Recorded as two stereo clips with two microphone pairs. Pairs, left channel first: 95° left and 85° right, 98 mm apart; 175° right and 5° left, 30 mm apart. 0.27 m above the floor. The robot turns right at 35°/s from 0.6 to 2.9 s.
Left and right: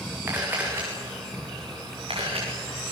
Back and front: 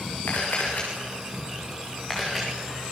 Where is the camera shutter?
155° right, 8.5 m; by 2.5 s 90° right, 8.5 m.